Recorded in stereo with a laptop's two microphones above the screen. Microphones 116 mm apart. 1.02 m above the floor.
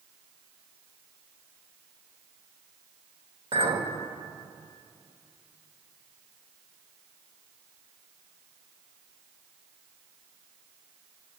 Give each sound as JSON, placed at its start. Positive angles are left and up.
{"t": 3.5, "sound": "a clink", "side_deg": -55, "distance_m": 3.0}